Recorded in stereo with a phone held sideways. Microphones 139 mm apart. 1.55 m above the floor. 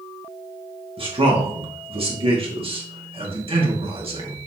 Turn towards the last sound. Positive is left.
turn(degrees=-40)  # may be behind; listen again after turning